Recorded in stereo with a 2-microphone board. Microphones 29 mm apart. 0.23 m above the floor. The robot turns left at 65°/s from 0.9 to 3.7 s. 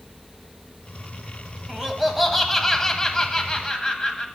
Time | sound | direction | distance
1.7 | laughter | 20° right (ahead or behind) | 1.2 m